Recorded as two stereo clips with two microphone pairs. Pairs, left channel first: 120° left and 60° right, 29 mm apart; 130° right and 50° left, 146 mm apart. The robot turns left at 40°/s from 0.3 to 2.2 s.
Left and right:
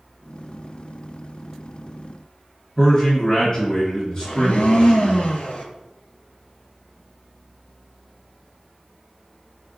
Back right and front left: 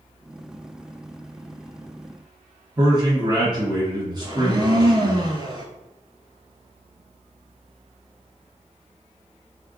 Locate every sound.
2.8 s a man speaking: 80° left, 1.5 m
4.2 s a blender: 100° left, 0.5 m